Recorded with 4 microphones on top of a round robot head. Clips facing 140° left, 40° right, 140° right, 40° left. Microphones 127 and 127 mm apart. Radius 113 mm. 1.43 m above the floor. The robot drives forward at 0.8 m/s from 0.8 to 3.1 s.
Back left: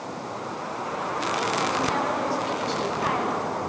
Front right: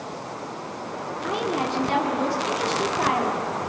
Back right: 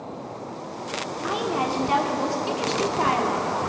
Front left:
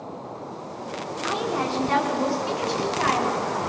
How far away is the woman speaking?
About 4.5 m.